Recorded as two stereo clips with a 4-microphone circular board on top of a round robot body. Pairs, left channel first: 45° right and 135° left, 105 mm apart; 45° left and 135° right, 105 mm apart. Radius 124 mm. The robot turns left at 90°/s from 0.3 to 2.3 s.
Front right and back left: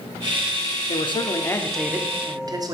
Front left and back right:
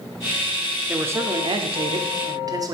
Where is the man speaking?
55° right, 1.1 m; by 2.8 s straight behind, 1.1 m.